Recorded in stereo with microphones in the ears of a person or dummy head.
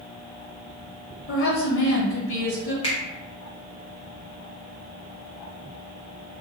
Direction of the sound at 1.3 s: 60° left (ahead or behind).